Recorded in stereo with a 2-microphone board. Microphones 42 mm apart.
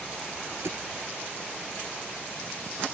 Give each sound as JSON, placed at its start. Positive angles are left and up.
{"t": 0.6, "sound": "a thud", "side_deg": -75}